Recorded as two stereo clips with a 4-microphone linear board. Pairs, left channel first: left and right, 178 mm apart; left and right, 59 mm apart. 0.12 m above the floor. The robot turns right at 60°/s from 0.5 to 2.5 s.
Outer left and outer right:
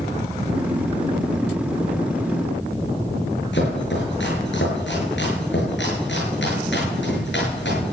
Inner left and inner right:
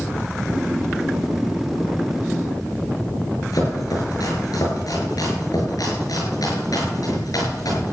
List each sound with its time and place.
3.5 s chopping: 70° left (ahead or behind), 7 m